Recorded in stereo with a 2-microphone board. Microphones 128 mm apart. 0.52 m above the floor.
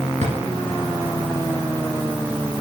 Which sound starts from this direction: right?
A drawer, at 0.2 s.